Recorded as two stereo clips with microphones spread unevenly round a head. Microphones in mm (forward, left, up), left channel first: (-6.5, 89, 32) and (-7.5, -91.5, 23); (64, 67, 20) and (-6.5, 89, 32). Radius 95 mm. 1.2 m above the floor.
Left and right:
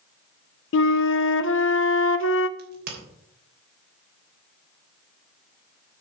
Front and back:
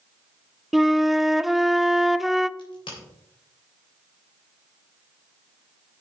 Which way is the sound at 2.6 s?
50° right.